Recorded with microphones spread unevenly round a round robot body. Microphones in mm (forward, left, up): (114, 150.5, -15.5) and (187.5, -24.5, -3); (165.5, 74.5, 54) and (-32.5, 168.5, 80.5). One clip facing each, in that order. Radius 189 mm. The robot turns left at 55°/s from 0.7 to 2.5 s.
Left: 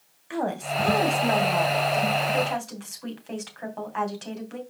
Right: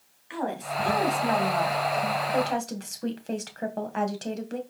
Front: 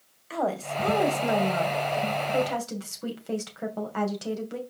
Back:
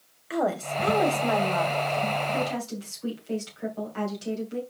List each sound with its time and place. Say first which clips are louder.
0.3 s a woman speaking: left 3 dB, back 2 dB; 80° left, 3 m; by 4.6 s 20° right, 3 m